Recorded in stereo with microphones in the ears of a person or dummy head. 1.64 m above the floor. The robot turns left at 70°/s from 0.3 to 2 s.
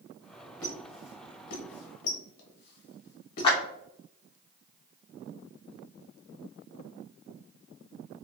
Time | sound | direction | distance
0.6 | a squeak | 10° left (ahead or behind) | 1.1 m
3.4 | a clap | 30° left (ahead or behind) | 0.9 m